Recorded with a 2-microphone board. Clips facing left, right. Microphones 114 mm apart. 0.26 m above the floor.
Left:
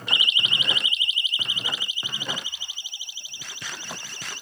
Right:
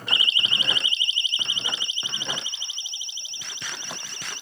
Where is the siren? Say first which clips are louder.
Even; 30° right (ahead or behind); by 4.4 s 20° right (ahead or behind).